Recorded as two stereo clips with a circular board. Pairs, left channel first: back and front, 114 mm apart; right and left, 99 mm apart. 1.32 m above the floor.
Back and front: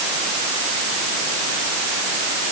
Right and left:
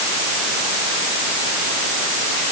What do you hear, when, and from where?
Only background noise.